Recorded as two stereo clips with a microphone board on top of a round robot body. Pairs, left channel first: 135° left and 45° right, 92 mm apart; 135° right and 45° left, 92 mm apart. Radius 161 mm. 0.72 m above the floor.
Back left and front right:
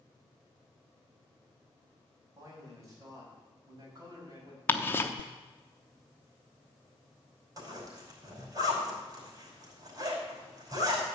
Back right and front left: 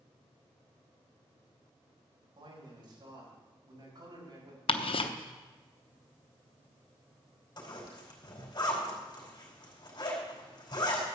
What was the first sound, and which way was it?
A man speaking, 10° left.